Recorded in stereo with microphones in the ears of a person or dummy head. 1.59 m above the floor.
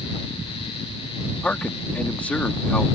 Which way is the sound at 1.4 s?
5° left (ahead or behind).